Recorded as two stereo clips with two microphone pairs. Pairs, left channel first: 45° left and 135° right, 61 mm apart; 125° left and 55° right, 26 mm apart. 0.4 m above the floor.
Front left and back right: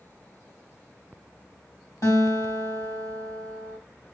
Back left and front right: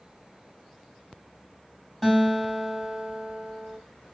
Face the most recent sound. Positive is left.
turn(degrees=45)